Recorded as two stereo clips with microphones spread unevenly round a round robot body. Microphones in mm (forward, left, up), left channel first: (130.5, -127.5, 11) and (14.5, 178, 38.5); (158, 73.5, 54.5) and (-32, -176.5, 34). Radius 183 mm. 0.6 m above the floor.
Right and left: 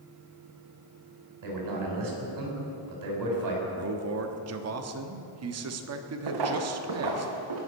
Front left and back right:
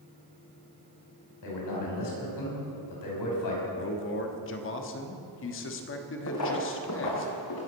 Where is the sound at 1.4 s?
85° left, 5.5 m.